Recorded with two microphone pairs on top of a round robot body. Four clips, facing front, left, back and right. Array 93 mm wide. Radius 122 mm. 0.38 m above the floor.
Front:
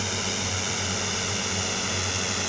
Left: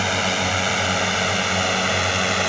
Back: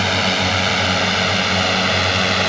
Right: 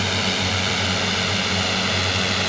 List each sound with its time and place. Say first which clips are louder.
0.0 s a drone: left 2 dB, back 12 dB; 155° left; by 2.5 s 150° left